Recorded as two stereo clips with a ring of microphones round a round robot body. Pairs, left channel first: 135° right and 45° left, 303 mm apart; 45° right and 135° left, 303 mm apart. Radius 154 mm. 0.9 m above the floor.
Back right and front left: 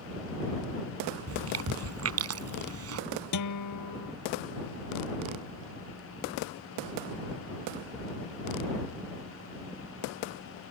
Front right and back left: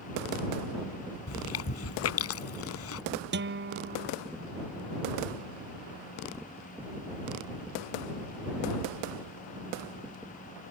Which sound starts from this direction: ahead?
Chewing, at 1.3 s.